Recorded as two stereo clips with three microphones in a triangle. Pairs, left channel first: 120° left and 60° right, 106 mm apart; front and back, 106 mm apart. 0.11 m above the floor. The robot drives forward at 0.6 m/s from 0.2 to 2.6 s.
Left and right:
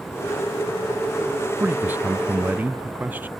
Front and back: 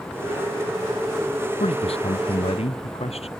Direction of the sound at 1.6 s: 10° left.